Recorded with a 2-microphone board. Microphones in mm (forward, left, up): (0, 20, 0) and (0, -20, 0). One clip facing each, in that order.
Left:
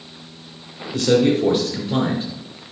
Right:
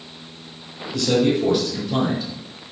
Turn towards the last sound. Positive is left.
turn(degrees=25)  # may be behind; listen again after turning